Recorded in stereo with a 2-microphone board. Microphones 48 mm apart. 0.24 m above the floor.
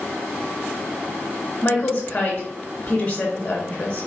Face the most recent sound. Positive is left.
turn(degrees=25)  # may be behind; listen again after turning